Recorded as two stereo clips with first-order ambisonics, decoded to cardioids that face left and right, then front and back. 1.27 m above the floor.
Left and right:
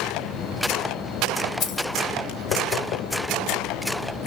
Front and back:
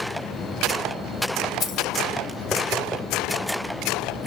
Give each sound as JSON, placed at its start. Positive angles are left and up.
{"t": 1.6, "sound": "keys jangling", "azimuth_deg": 50, "distance_m": 1.5}